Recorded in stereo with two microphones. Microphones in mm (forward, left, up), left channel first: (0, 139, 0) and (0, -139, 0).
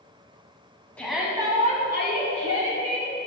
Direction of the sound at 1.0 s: 5° left (ahead or behind).